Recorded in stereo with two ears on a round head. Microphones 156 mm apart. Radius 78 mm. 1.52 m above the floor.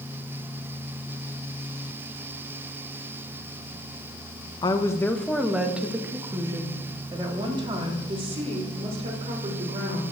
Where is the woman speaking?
25° left (ahead or behind), 1.3 m; by 10.0 s 40° right (ahead or behind), 5 m.